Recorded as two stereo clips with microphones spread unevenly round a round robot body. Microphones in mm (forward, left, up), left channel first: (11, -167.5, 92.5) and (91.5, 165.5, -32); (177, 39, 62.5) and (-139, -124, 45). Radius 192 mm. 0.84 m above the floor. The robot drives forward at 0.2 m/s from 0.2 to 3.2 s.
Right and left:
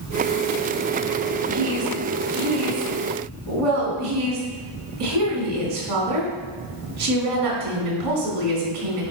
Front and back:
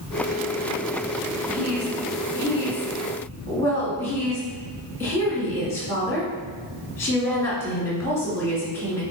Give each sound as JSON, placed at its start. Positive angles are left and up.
{"t": 1.5, "sound": "a woman speaking", "azimuth_deg": 105, "distance_m": 2.5}